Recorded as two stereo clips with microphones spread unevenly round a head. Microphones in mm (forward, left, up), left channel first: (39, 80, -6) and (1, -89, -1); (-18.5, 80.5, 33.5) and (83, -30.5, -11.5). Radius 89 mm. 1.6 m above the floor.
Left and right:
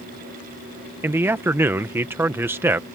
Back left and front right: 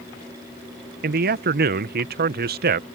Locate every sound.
1.0 s a man speaking: 25° right